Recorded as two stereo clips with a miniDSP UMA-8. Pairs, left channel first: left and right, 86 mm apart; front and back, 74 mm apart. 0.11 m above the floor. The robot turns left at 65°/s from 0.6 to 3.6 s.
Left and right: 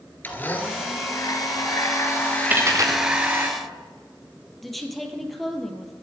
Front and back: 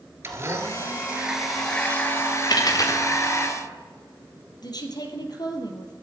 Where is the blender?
145° left, 2 m; by 3.5 s 40° right, 2 m.